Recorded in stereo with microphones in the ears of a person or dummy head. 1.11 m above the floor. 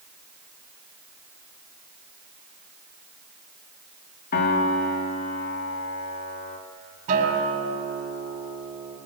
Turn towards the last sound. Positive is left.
turn(degrees=-45)  # may be behind; listen again after turning